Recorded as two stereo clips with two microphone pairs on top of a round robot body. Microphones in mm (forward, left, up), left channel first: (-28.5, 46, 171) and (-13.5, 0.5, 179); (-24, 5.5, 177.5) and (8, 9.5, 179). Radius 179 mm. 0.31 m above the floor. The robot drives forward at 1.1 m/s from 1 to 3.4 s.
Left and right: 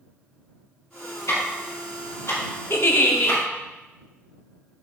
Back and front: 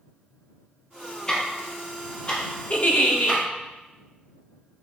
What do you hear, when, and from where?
1.3 s ticking: 120° left, 4 m; by 3.4 s 140° left, 5.5 m
2.7 s a giggle: 135° left, 1.1 m; by 3.4 s 155° left, 1.7 m